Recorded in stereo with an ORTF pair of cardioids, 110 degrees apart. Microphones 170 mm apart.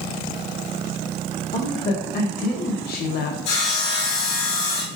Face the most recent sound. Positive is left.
turn(degrees=70)